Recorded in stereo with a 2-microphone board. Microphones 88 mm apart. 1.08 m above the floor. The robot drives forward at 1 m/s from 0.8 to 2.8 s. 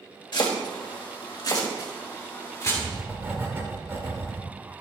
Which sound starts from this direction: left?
Chopping, at 0.3 s.